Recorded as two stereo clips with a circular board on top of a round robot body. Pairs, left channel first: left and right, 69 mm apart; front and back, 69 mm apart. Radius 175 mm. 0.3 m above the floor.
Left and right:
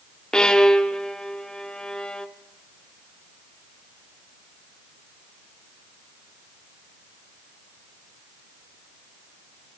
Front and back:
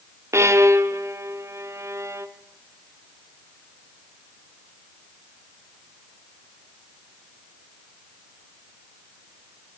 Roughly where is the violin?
Behind.